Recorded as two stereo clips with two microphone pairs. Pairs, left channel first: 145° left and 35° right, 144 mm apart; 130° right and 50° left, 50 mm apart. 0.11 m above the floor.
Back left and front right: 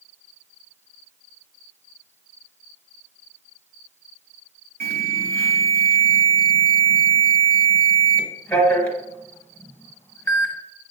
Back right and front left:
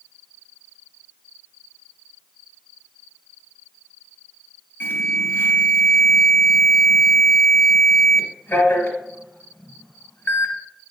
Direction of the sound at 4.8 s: 140° right.